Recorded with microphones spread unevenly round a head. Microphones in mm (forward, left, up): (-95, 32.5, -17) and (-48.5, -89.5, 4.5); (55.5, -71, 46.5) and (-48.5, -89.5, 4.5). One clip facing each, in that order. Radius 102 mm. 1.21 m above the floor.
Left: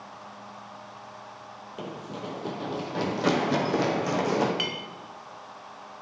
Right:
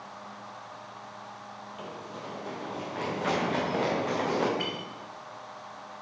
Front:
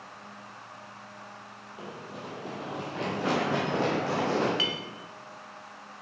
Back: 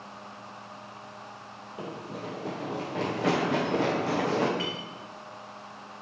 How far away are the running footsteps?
About 1.6 m.